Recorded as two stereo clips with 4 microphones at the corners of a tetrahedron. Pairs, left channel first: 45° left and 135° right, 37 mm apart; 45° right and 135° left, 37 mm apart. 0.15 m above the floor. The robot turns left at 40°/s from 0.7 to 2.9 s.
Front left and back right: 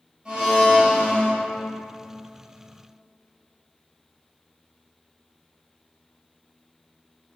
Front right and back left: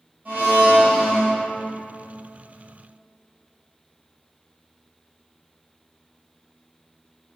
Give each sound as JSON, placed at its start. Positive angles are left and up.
{"t": 0.2, "sound": "a blender", "azimuth_deg": 160, "distance_m": 1.3}